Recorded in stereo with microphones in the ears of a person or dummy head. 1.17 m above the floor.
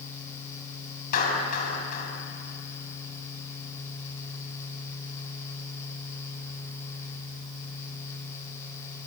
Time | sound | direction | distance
1.1 | a clap | 45° left (ahead or behind) | 7.5 m